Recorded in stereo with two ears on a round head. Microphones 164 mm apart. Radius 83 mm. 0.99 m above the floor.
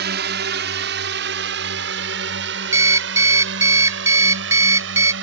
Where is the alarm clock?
15° right (ahead or behind).